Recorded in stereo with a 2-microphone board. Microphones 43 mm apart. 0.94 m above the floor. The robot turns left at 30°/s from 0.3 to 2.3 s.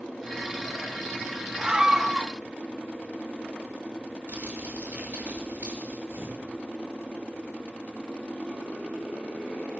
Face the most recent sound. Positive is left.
turn(degrees=-85)